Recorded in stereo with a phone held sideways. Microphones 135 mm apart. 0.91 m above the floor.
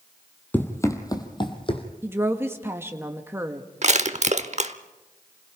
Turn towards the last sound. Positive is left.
turn(degrees=-60)  # may be behind; listen again after turning